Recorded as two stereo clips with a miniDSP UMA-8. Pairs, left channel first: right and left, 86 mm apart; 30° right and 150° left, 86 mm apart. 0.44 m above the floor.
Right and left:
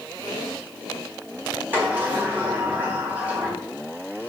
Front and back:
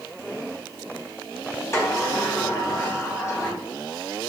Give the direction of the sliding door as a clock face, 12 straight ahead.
11 o'clock.